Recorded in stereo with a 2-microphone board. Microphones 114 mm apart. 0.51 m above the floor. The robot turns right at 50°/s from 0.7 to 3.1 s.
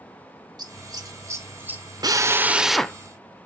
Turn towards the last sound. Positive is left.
turn(degrees=15)